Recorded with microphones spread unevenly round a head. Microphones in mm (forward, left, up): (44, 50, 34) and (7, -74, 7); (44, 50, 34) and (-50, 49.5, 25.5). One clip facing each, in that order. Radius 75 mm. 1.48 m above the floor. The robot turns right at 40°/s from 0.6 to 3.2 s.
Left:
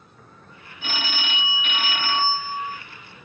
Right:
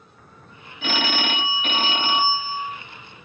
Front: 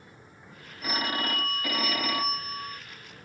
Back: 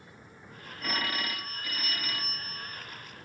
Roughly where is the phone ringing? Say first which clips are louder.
Right 7 dB, front 3 dB; right.